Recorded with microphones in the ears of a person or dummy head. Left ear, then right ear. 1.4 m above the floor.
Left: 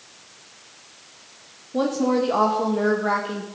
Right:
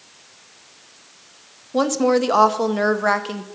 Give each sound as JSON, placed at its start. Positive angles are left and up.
{"t": 1.7, "sound": "a woman speaking", "side_deg": -60, "distance_m": 1.0}